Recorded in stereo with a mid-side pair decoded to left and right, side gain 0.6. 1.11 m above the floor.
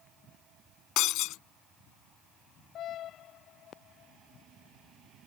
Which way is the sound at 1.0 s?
70° left.